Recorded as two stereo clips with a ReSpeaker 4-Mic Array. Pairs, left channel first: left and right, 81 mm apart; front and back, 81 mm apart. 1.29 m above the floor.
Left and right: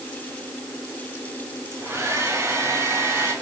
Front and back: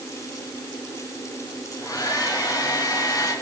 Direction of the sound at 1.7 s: 40° right.